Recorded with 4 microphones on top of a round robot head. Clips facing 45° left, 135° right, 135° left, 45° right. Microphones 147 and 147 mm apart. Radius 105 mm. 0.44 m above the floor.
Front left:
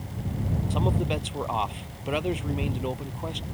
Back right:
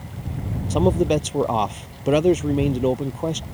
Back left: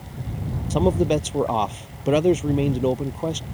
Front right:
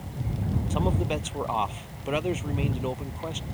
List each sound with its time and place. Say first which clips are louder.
0.7 s a man speaking: back right 11 dB, back left 10 dB; 175° right